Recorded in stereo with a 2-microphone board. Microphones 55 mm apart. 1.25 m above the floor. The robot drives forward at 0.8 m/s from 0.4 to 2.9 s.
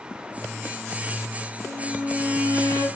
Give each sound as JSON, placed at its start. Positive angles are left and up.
{"t": 1.6, "sound": "a violin", "side_deg": 65, "distance_m": 2.5}